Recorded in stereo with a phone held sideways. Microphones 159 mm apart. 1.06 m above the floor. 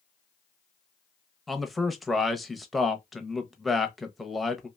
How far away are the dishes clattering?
No dishes clattering in this recording.